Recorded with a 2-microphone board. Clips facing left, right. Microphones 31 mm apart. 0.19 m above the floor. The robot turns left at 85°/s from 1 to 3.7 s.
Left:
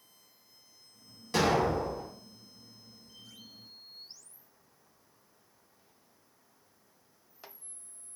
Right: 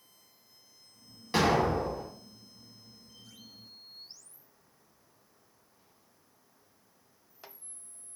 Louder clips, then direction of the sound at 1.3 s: Right 1 dB; 90° right.